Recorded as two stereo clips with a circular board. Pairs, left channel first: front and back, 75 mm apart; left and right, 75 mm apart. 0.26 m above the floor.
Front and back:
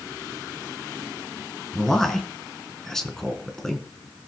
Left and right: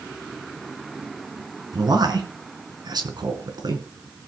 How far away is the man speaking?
About 3.5 m.